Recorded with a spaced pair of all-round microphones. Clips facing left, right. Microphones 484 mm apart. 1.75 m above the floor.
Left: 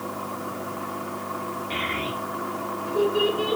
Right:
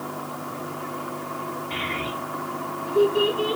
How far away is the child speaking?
About 4 m.